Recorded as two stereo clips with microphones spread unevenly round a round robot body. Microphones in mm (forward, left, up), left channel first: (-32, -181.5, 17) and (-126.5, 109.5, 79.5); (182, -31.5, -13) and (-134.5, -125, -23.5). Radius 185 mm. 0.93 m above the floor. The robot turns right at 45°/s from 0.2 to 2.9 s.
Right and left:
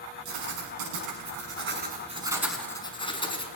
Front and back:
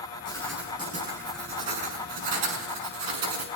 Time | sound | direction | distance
0.2 | writing | 95° left | 6 m